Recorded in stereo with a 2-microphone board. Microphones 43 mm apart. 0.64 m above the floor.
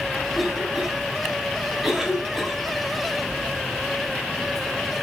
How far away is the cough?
About 5 m.